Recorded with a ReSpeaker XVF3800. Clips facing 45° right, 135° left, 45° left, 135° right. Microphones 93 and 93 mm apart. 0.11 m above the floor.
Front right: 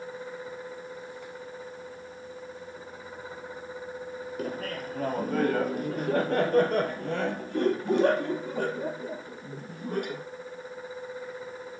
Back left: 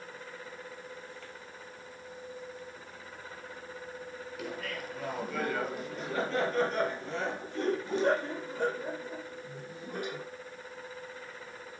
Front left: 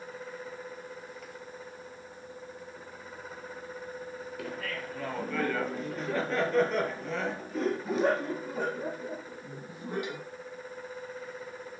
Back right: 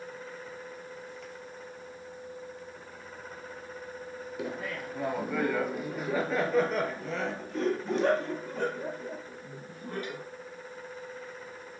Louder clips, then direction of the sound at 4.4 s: Front right 5 dB, back right 2 dB; 75° right.